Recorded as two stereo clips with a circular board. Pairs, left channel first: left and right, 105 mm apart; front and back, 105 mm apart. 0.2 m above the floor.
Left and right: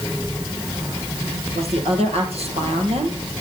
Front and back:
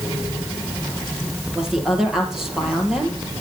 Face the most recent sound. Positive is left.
turn(degrees=-95)